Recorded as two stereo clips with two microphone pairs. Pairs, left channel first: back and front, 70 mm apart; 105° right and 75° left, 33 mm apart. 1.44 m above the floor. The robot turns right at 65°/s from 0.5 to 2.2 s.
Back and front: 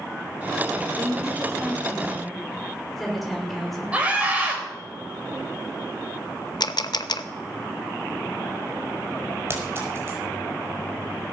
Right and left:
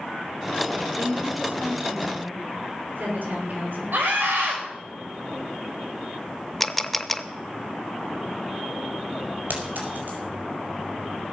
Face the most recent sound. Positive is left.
turn(degrees=50)